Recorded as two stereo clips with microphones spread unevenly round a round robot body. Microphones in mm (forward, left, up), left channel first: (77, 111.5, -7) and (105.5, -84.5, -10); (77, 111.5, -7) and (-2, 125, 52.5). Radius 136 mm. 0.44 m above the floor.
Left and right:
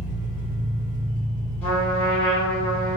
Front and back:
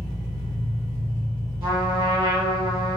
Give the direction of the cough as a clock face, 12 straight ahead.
I don't hear a cough.